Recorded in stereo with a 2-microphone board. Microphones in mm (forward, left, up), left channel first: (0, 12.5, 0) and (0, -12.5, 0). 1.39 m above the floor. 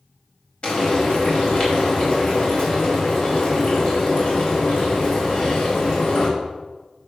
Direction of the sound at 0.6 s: 60° left (ahead or behind).